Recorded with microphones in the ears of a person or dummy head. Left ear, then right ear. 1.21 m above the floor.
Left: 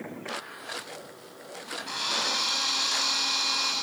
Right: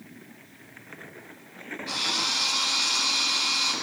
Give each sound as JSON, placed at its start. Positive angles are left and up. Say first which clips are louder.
{"t": 1.9, "sound": "a drill", "louder": "right 2 dB", "side_deg": 5, "distance_m": 9.0}